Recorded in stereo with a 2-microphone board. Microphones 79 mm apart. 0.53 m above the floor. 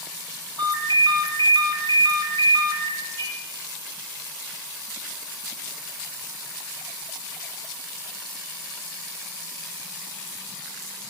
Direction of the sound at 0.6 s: 70° right (ahead or behind).